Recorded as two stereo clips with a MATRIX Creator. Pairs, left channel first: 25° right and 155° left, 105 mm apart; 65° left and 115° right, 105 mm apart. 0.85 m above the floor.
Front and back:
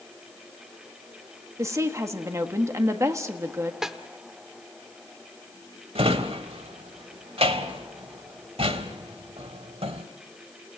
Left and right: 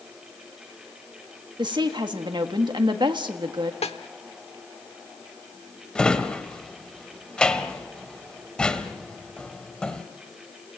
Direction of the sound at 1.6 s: 145° right.